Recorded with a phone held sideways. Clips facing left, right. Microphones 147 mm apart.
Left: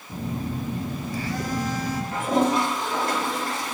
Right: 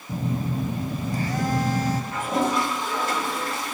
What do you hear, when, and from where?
0.1 s a phone buzzing: 45° right (ahead or behind), 0.8 m
2.1 s a toilet flushing: 35° left (ahead or behind), 3 m